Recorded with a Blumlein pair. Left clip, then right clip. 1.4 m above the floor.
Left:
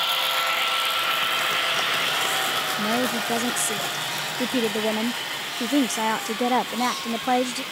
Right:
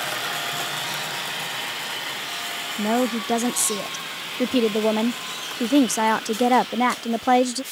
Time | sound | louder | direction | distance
2.8 | a woman speaking | right 1 dB | 15° right | ?